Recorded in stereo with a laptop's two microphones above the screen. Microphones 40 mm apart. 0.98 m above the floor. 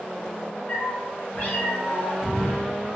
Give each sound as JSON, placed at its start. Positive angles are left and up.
{"t": 0.7, "sound": "a cat meowing", "side_deg": 50, "distance_m": 1.1}